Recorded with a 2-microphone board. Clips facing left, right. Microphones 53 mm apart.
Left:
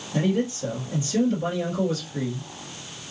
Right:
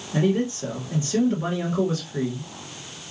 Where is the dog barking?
I don't hear a dog barking.